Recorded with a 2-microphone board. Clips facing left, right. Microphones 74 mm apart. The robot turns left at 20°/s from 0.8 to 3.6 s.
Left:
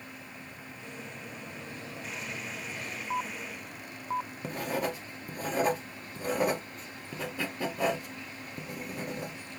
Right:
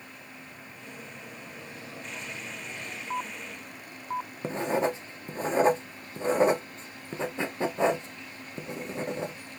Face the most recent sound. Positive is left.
turn(degrees=-25)  # may be behind; listen again after turning